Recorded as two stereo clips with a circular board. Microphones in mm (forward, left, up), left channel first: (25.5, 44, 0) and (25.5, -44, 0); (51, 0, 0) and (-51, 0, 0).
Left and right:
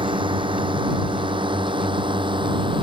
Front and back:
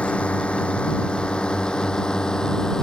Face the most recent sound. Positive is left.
turn(degrees=-85)